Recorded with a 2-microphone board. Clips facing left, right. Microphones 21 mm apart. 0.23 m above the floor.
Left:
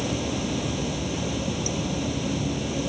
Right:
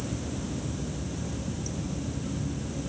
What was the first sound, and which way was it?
Running water, 60° left (ahead or behind).